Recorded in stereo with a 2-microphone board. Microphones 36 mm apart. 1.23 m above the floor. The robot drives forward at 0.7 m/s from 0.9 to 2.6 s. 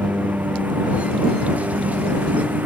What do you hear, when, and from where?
0.0 s a lawn mower: 50° right (ahead or behind); by 2.7 s 55° right (ahead or behind)